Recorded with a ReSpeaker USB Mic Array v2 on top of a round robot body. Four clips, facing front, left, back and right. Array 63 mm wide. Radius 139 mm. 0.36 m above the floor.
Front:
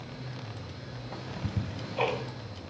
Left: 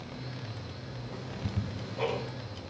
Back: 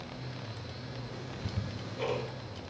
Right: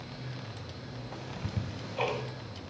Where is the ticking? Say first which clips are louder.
Left 2 dB, front 6 dB; 25° right, 3 m.